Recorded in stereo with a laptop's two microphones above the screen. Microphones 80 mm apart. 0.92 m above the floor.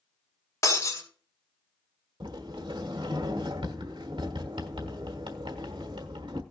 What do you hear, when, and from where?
0.6 s breaking glass: 40° left (ahead or behind), 2.5 m
2.2 s a sliding door: 80° right, 1.3 m